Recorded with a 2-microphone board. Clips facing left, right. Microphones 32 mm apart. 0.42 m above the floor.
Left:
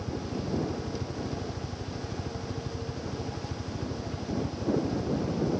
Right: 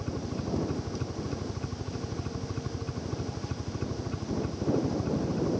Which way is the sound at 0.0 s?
35° right (ahead or behind).